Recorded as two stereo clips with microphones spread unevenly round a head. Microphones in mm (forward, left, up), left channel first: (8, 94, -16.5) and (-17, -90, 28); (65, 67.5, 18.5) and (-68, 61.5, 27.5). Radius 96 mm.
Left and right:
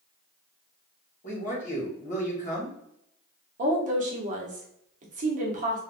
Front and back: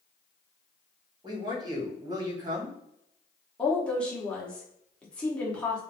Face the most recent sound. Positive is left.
turn(degrees=-65)